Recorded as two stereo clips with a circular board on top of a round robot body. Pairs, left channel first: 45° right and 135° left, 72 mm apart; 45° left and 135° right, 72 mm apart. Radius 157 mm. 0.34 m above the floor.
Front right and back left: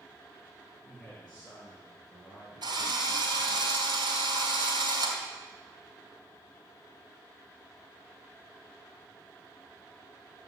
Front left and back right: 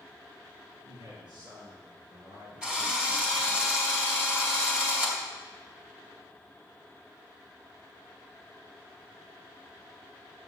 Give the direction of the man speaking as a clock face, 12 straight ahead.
4 o'clock.